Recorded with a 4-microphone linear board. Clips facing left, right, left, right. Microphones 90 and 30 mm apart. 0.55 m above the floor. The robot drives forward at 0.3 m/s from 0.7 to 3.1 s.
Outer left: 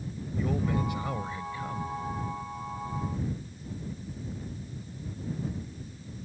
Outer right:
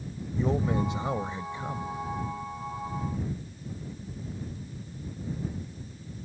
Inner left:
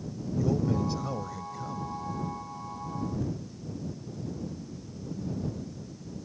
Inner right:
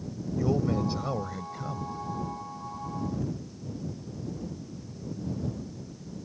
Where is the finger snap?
I don't hear a finger snap.